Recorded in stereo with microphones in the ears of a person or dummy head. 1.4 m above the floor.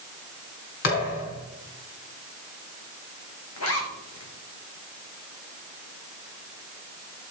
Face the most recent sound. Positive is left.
turn(degrees=80)